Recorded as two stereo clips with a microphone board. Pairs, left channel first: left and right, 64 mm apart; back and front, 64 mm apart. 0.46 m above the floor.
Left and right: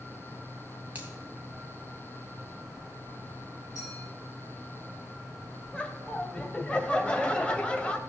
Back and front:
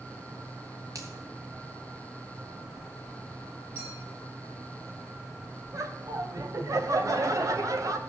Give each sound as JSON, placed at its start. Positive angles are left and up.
{"t": 0.9, "sound": "a finger snap", "azimuth_deg": -25, "distance_m": 2.5}
{"t": 3.8, "sound": "a clink", "azimuth_deg": 50, "distance_m": 8.5}
{"t": 5.7, "sound": "laughter", "azimuth_deg": 15, "distance_m": 1.8}